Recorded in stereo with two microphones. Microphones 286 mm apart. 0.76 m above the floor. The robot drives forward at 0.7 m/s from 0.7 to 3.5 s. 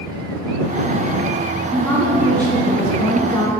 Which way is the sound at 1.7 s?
5° left (ahead or behind).